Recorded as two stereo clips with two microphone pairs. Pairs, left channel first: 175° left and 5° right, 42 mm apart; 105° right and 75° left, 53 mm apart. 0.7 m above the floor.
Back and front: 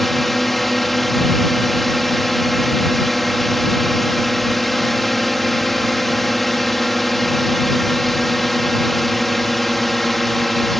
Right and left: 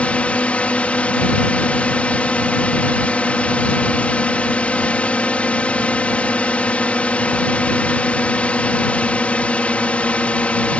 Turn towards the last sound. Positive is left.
turn(degrees=-105)